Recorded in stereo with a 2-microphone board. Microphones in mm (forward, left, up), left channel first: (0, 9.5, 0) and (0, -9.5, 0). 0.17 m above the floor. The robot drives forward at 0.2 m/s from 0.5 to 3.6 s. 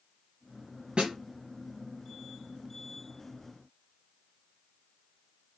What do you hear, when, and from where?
1.0 s a snare drum: 65° right (ahead or behind), 2.5 m